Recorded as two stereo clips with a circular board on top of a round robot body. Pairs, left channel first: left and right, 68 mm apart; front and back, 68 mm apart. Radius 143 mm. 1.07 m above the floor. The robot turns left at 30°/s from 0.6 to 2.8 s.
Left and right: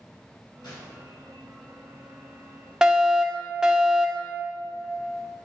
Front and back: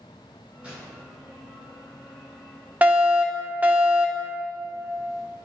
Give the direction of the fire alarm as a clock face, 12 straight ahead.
5 o'clock.